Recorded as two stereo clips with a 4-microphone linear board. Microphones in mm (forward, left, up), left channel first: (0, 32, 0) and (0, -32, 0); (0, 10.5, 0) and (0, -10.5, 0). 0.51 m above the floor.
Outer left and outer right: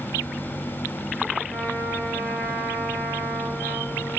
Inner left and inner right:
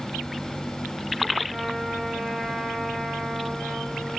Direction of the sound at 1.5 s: 15° left (ahead or behind).